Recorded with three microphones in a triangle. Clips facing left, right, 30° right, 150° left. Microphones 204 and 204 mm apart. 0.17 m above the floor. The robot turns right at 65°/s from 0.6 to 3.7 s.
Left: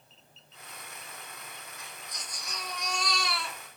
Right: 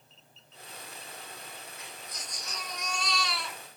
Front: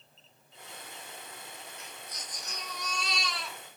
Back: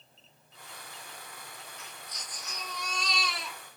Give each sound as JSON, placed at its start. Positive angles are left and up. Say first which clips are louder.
{"t": 1.8, "sound": "a baby crying", "louder": "right 1 dB, front 1 dB", "azimuth_deg": -30, "distance_m": 1.9}